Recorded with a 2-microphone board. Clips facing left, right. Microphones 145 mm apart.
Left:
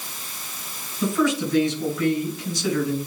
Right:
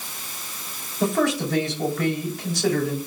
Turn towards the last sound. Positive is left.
turn(degrees=-85)